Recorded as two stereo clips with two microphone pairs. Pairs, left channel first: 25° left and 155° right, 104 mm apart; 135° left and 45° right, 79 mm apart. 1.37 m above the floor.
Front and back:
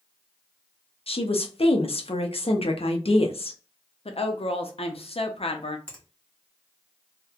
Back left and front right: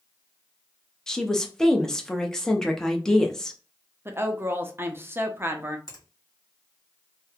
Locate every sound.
1.1 s a woman speaking: 50° left, 0.6 m
4.0 s a woman speaking: 15° left, 0.5 m
5.9 s a finger snap: 105° left, 1.7 m